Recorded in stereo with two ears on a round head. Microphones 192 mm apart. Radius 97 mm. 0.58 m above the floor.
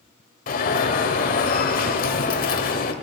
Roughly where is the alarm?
Left.